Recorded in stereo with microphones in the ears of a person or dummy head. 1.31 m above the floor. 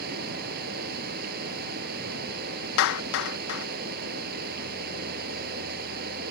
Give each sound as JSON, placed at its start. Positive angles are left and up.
{"t": 0.0, "sound": "running water", "side_deg": -50}
{"t": 2.8, "sound": "a clap", "side_deg": 75}